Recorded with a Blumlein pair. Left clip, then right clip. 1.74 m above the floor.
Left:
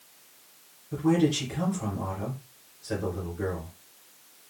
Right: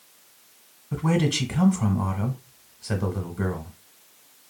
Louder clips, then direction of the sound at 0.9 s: Even; 60° right.